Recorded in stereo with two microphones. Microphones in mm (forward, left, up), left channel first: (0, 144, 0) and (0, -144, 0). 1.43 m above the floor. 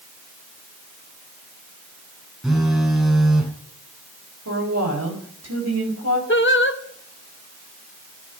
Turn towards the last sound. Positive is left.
turn(degrees=40)  # may be behind; listen again after turning